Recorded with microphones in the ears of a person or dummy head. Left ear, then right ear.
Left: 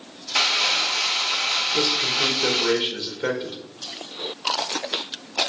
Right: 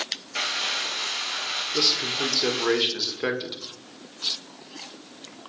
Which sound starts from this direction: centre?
Crumpling, at 0.3 s.